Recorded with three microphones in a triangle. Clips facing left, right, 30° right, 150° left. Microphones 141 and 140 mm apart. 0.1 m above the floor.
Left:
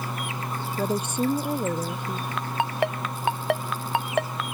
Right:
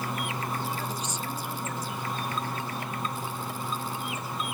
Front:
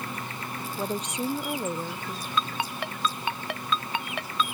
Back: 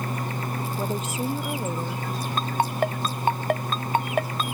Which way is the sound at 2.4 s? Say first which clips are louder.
Left 7 dB, back 6 dB; 105° left.